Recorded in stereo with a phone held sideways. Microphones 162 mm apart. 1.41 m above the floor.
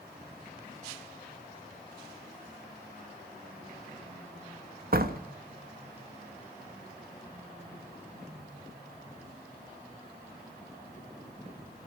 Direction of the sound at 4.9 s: 60° right (ahead or behind).